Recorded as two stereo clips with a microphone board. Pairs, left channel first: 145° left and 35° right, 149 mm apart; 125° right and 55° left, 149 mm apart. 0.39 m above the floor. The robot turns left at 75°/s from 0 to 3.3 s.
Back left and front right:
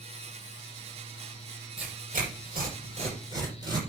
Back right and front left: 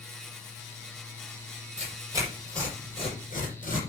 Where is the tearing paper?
20° left, 6 m; by 3.8 s 95° right, 6 m.